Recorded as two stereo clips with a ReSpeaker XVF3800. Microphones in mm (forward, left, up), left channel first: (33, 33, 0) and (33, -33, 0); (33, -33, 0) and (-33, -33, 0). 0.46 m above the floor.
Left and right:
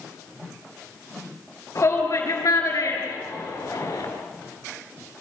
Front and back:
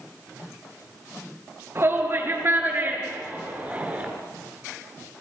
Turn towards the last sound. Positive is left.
turn(degrees=110)